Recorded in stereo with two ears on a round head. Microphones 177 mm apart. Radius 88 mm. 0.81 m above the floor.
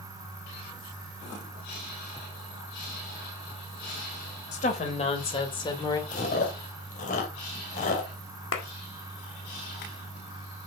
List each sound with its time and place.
4.5 s a woman speaking: 40° left (ahead or behind), 3.5 m; by 6.0 s 20° left (ahead or behind), 2 m
6.1 s chewing: 40° left (ahead or behind), 2.5 m
8.5 s a clap: 75° left (ahead or behind), 2 m